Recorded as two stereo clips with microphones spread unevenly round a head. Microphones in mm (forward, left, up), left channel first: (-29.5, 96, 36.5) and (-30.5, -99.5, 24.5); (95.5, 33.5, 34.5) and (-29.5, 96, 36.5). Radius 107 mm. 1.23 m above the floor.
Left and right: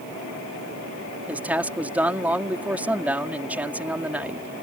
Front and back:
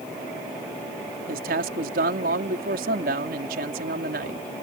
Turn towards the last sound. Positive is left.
turn(degrees=-175)